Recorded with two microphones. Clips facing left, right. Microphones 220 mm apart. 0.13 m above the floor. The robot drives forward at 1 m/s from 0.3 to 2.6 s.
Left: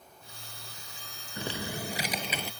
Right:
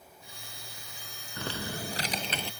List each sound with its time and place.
1.4 s typing on a keyboard: 20° left (ahead or behind); by 2.5 s 10° left (ahead or behind)